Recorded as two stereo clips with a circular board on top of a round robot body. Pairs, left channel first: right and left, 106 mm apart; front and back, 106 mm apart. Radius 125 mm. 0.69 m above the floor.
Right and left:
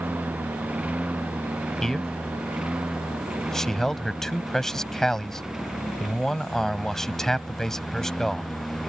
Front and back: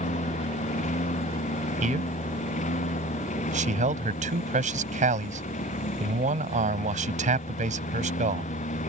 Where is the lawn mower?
15° left; by 8.9 s straight ahead.